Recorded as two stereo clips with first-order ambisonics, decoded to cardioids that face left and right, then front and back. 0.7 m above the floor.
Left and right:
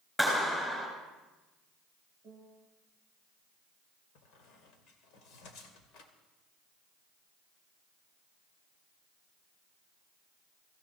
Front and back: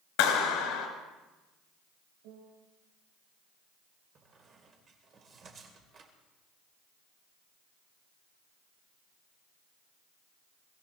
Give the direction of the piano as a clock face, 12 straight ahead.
5 o'clock.